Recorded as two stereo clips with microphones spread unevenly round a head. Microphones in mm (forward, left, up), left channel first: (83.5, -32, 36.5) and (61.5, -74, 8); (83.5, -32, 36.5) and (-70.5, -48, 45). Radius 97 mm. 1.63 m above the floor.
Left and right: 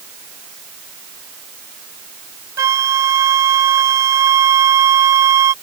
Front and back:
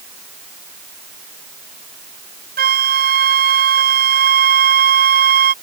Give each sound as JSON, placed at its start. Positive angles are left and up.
{"t": 2.6, "sound": "a flute", "azimuth_deg": -150}